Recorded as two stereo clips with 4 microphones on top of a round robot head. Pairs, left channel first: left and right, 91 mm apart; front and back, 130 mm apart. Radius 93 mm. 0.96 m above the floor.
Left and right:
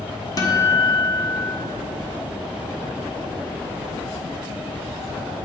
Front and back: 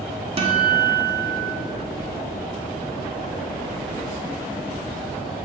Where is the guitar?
140° left, 1.3 m.